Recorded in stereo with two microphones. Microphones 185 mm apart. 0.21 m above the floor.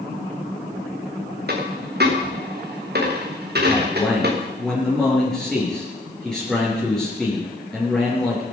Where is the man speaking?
5° left (ahead or behind), 4.5 m.